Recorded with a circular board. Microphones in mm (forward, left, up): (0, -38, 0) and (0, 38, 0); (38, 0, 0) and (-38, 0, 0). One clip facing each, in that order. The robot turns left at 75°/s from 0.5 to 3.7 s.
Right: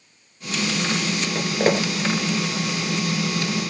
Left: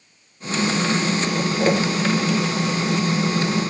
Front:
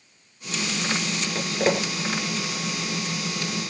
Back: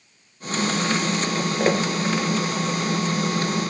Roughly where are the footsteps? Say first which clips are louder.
Right 1 dB, back 1 dB; right.